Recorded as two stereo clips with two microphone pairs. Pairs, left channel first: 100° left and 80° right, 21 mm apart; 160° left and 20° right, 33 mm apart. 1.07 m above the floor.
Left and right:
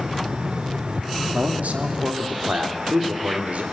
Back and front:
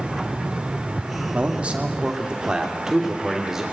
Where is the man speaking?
75° right, 2.5 m; by 3.6 s 100° right, 4 m.